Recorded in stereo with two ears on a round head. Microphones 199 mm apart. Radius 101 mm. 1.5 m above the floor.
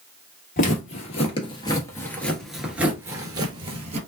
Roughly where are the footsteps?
Left.